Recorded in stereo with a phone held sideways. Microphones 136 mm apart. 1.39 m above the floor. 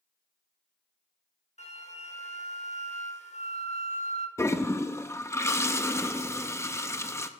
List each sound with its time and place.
1.6 s a flute: 55° left (ahead or behind), 1.5 m
4.4 s a toilet flushing: 20° left (ahead or behind), 0.7 m